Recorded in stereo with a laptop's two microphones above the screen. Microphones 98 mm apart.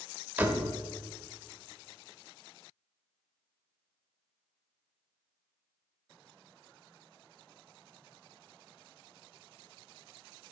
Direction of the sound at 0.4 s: 15° right (ahead or behind).